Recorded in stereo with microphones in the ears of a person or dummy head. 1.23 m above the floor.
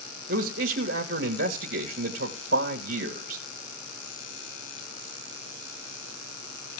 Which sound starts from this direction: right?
A man speaking, at 0.3 s.